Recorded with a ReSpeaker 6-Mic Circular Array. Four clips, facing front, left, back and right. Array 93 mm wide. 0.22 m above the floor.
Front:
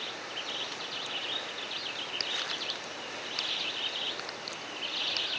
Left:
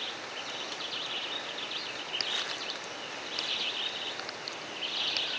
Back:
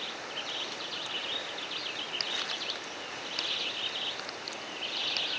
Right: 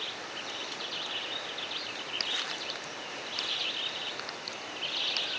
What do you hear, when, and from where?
Only background noise.